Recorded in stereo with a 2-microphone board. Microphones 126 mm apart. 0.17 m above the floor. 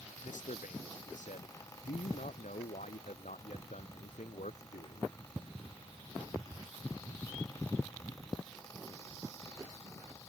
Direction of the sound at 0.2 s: 80° left.